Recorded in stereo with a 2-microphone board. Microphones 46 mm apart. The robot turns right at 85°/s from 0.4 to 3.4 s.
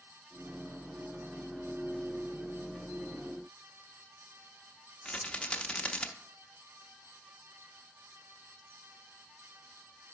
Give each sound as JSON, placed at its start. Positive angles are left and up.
{"t": 5.0, "sound": "a rattle", "side_deg": 25, "distance_m": 0.6}